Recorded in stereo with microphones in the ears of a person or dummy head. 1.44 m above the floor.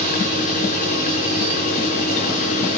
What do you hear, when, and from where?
0.0 s a machine running: 35° left (ahead or behind), 4.5 m